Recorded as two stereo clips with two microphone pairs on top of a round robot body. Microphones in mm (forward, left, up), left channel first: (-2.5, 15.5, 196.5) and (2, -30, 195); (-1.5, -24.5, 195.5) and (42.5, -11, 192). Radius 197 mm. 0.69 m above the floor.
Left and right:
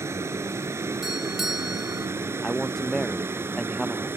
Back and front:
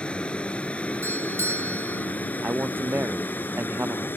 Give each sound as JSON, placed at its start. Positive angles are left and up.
{"t": 0.0, "sound": "a vehicle", "azimuth_deg": -95}
{"t": 1.0, "sound": "a doorbell", "azimuth_deg": 0}
{"t": 2.4, "sound": "a man speaking", "azimuth_deg": 10}